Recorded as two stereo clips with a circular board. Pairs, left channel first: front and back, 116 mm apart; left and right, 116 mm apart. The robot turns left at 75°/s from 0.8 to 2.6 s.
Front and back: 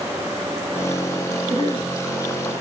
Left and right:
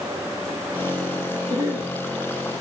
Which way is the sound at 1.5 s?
170° left.